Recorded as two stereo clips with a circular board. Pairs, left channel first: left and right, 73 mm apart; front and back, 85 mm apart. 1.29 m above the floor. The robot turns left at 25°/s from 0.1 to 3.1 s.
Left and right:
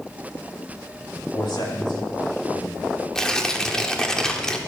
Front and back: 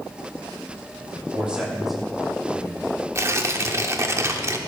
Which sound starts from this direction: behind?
Tearing paper, at 3.1 s.